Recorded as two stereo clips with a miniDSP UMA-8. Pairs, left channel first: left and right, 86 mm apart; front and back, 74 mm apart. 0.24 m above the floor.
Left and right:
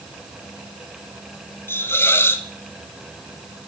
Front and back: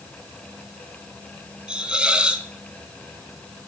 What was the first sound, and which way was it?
A hiss, 115° left.